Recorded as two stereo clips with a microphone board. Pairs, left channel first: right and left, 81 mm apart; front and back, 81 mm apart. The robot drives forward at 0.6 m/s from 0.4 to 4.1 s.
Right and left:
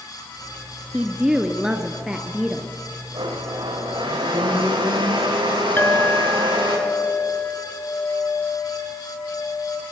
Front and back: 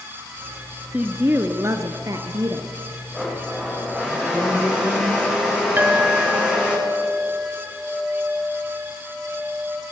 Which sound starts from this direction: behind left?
A woman speaking, at 0.9 s.